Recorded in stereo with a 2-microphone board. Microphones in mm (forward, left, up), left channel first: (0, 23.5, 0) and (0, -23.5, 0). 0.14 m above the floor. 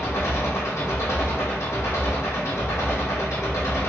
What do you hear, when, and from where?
0.0 s an engine running: 80° left, 1.5 m